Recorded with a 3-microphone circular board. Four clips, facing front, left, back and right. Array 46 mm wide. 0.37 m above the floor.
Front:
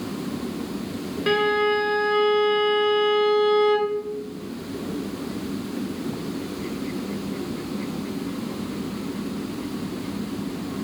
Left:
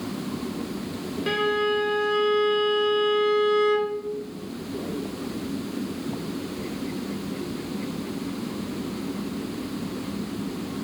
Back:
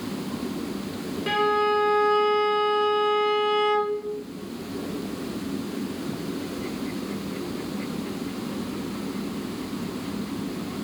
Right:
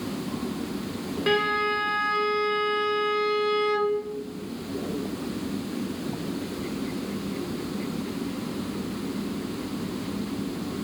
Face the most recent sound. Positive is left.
turn(degrees=-45)